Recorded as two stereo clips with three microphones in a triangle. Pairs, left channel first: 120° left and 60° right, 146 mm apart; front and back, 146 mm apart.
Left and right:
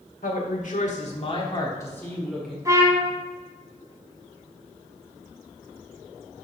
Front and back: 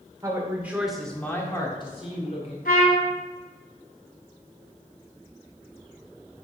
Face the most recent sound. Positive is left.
turn(degrees=10)